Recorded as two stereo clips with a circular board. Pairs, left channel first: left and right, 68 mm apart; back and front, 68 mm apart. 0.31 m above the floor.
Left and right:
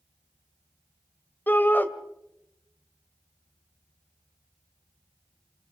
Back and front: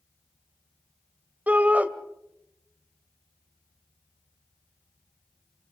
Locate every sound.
1.5 s a shout: 50° left, 1.6 m